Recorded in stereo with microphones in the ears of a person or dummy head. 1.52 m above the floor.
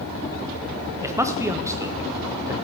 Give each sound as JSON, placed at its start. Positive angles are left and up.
{"t": 1.0, "sound": "a man speaking", "side_deg": -15, "distance_m": 0.8}